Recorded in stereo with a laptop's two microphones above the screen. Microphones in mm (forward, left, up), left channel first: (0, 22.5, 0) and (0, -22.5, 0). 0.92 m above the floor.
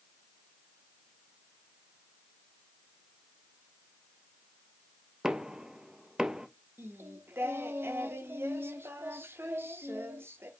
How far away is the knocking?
About 0.5 m.